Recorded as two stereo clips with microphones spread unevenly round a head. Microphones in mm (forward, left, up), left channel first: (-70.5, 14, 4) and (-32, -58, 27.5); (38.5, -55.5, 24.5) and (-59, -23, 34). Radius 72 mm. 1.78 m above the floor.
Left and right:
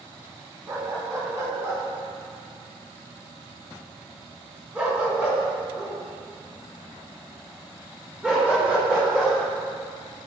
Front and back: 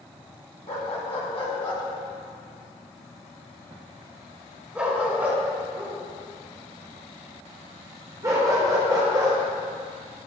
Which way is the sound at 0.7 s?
25° right.